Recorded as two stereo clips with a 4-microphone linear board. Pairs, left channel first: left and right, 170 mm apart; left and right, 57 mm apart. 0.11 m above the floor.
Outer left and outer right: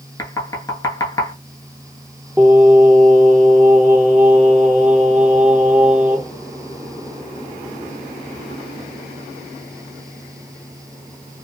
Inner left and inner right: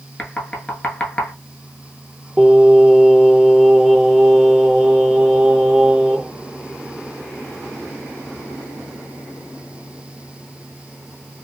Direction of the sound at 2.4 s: 10° right (ahead or behind).